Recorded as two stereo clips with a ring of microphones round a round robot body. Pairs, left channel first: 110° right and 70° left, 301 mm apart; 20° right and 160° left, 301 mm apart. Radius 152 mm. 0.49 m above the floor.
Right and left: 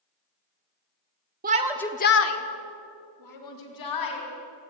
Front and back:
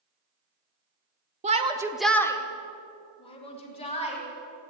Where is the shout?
105° left, 1.0 m; by 4.2 s 95° right, 4 m.